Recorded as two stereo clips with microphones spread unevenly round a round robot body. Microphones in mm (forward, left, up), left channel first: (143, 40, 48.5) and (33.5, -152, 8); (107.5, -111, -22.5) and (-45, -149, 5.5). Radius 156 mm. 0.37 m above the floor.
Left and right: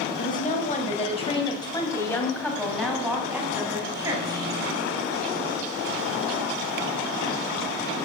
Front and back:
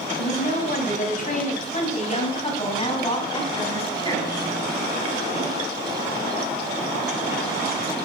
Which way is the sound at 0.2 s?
10° left.